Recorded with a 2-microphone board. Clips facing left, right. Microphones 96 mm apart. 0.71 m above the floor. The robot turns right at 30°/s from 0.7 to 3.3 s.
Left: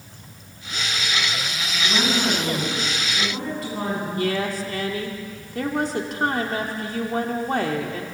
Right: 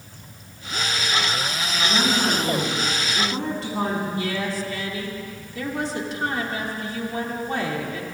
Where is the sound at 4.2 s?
50° left (ahead or behind), 2.0 m.